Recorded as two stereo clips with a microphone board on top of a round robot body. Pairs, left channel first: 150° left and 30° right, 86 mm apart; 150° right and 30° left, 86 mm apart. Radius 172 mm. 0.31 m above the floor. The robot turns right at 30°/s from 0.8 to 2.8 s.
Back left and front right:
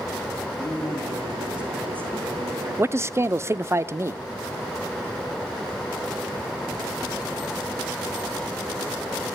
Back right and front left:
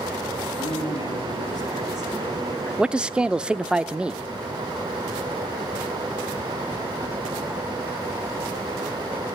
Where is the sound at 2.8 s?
40° right, 1.1 m.